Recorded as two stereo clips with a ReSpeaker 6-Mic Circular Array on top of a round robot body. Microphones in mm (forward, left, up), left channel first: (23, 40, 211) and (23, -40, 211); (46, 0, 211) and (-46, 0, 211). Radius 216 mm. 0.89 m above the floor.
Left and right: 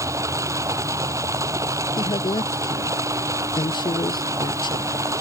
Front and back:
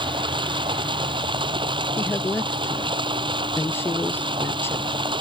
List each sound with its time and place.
0.0 s running water: 145° right
2.0 s a woman speaking: 65° left